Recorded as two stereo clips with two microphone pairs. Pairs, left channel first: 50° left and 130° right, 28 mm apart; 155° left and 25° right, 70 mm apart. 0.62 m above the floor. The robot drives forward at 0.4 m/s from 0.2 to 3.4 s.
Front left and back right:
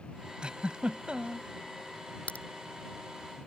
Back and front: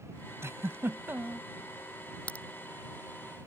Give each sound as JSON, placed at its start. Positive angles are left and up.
{"t": 0.4, "sound": "a giggle", "azimuth_deg": -75}
{"t": 2.3, "sound": "a crack", "azimuth_deg": 85}